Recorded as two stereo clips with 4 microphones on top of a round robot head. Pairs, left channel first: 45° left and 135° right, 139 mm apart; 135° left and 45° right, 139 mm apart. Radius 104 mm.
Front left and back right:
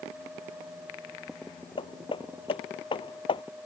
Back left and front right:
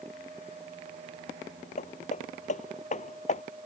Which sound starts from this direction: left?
Hammering, at 1.8 s.